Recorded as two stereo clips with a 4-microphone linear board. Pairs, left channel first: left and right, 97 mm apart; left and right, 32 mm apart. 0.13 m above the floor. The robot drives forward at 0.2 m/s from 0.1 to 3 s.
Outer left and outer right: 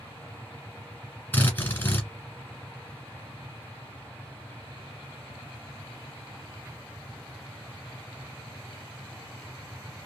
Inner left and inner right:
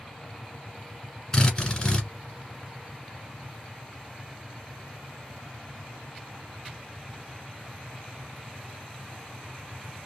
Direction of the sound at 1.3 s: 20° left (ahead or behind).